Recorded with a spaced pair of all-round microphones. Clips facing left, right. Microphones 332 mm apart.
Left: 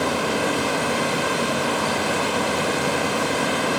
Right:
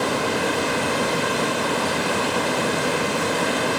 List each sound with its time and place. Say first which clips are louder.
0.0 s running water: even; 25° right (ahead or behind), 7.5 m